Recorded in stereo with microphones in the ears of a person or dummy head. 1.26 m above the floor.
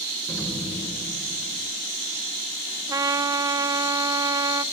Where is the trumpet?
15° right (ahead or behind), 0.6 m.